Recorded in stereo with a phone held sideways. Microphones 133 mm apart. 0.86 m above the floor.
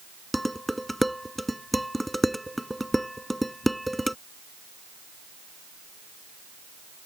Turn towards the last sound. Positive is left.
turn(degrees=0)  # may be behind; listen again after turning